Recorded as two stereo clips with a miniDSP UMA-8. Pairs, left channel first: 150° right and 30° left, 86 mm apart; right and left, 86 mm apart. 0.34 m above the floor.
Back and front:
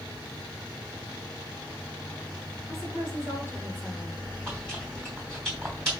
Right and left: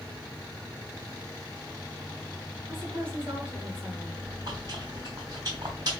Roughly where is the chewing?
Behind left.